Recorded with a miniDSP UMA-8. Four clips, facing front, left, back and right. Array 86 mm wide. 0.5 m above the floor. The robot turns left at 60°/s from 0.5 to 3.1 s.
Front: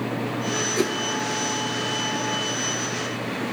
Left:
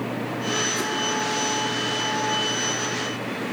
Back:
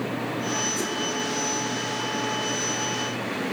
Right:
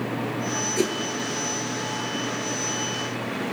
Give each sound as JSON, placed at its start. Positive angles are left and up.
{"t": 0.8, "sound": "a whoosh", "azimuth_deg": -35, "distance_m": 5.5}